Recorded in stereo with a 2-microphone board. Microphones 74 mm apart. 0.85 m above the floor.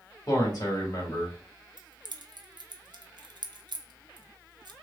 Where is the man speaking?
60° left (ahead or behind), 1.6 m.